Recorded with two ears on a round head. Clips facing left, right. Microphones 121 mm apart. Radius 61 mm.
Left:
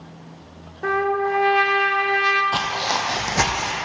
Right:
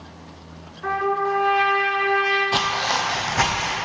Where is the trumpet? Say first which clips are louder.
Left 1 dB; 60° left (ahead or behind), 0.6 m.